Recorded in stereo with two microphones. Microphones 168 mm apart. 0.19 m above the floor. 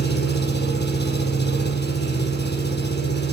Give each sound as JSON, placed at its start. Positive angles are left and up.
{"t": 0.0, "sound": "an engine running", "side_deg": 75, "distance_m": 5.5}